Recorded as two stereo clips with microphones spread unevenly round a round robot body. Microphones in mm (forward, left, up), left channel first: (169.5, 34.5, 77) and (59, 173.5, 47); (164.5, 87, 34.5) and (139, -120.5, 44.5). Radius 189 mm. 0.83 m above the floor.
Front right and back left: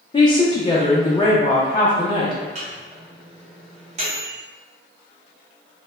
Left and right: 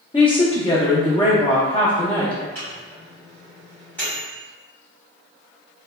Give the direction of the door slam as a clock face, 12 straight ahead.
No door slam in this recording.